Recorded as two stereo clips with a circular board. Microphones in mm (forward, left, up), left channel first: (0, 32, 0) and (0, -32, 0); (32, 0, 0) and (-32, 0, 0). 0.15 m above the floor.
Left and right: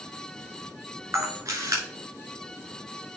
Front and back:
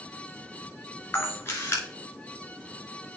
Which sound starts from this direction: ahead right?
A camera shutter, at 1.1 s.